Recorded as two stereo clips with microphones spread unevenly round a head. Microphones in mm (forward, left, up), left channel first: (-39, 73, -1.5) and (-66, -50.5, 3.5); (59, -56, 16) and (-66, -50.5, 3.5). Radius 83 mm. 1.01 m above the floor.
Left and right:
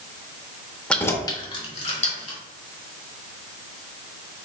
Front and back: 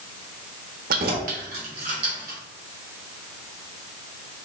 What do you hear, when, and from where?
0.9 s keys jangling: 160° left, 0.8 m; by 2.4 s 105° left, 1.8 m